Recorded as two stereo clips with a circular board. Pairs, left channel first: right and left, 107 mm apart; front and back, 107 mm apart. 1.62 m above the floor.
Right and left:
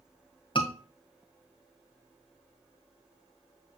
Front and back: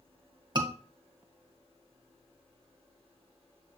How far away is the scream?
About 2 m.